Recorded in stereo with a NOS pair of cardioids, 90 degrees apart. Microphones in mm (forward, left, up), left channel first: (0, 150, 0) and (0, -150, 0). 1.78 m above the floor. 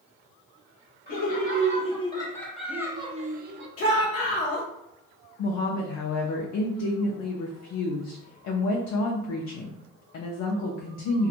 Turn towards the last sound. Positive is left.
turn(degrees=65)